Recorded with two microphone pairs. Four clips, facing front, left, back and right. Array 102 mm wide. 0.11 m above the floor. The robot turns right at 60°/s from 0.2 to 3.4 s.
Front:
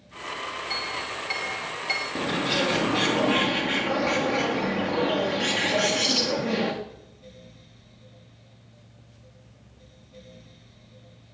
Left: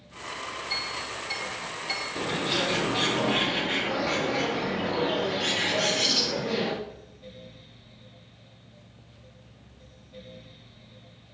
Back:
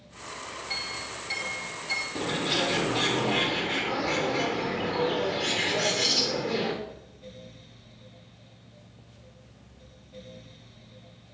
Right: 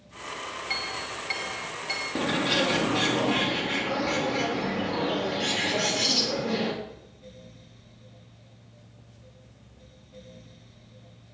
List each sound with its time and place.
0.7 s a clink: 80° right, 7.5 m; by 2.0 s straight ahead, 7.5 m
2.1 s a bird: 65° right, 6 m; by 6.7 s 10° left, 6 m